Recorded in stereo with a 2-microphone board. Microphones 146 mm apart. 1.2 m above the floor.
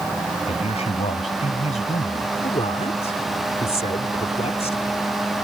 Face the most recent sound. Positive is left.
turn(degrees=45)  # may be behind; listen again after turning